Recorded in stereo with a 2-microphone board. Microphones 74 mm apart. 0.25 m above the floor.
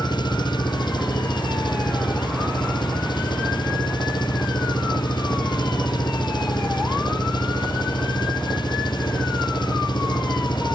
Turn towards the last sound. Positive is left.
turn(degrees=80)